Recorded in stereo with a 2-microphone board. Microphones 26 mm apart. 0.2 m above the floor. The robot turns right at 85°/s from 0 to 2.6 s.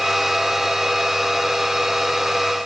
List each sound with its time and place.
Only background noise.